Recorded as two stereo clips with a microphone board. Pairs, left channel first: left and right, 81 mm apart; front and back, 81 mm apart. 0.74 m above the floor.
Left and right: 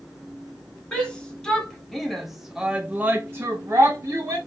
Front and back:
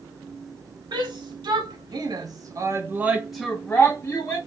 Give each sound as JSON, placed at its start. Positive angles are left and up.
{"t": 0.9, "sound": "a shout", "azimuth_deg": 170, "distance_m": 1.5}